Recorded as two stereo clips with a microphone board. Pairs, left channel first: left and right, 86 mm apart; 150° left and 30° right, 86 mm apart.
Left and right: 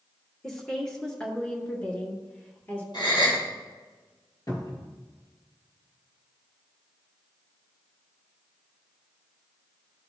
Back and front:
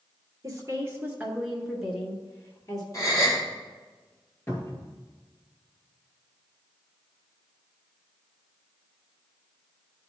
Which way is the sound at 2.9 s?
100° left.